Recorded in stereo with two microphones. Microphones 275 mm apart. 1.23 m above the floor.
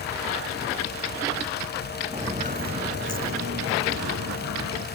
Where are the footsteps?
20° right (ahead or behind); by 4.8 s 75° right (ahead or behind).